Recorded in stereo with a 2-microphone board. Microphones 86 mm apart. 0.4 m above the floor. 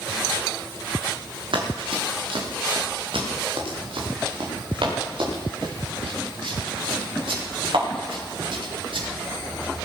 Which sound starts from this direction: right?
Running footsteps, at 1.5 s.